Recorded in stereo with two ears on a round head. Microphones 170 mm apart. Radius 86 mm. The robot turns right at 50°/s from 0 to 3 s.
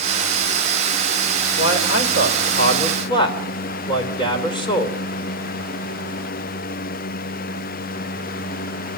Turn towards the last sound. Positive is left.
turn(degrees=150)